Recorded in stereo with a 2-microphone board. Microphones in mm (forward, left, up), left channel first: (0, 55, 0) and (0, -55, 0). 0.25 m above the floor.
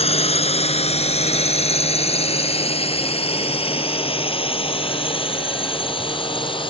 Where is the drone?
65° left (ahead or behind); by 6.7 s 50° left (ahead or behind).